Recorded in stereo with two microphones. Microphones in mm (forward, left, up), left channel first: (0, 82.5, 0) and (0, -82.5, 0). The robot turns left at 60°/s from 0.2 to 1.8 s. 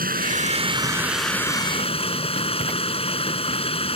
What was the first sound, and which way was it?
Running water, 120° right.